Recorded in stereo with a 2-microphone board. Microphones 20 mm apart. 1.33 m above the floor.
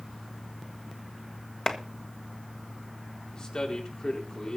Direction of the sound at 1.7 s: 25° left (ahead or behind).